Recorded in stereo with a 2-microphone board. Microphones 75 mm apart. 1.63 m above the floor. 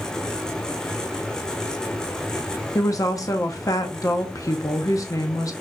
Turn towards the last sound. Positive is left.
turn(degrees=50)  # may be behind; listen again after turning